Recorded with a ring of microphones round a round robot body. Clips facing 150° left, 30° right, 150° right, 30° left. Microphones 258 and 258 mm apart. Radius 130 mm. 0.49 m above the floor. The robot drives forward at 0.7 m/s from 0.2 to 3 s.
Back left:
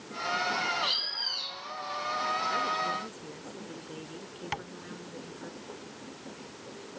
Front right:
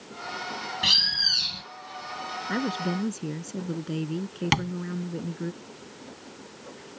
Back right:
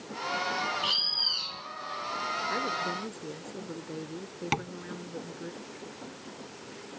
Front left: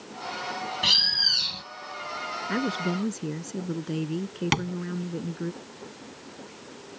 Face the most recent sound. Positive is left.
turn(degrees=-35)